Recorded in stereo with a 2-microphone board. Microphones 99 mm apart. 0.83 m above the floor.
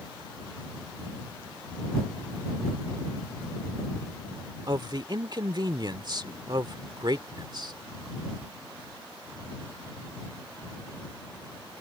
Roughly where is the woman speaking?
Right.